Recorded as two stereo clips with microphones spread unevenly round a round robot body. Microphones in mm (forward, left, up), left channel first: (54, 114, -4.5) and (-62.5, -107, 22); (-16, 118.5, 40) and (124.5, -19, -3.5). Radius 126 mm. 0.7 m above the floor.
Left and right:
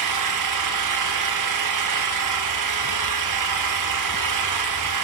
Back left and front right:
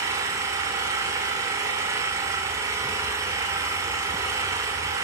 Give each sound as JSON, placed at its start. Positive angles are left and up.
{"t": 0.0, "sound": "an engine running", "azimuth_deg": -120, "distance_m": 1.4}